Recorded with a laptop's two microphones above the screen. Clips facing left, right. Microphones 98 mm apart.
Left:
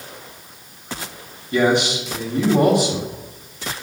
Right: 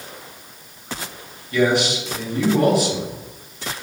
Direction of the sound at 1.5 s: 20° left (ahead or behind).